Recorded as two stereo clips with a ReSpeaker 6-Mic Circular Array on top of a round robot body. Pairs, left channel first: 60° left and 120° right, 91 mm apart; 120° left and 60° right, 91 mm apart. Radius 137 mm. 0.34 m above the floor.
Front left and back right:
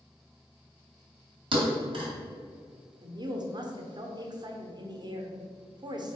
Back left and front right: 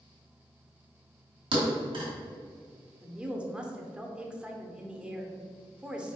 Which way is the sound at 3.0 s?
135° right.